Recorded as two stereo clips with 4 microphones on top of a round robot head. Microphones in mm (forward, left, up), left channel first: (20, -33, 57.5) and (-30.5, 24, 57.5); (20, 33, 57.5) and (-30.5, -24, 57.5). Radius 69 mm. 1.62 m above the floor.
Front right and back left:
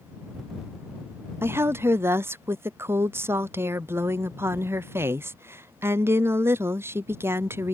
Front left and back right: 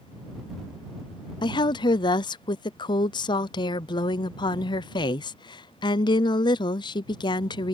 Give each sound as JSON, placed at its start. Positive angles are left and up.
{"t": 1.4, "sound": "a woman speaking", "azimuth_deg": 70}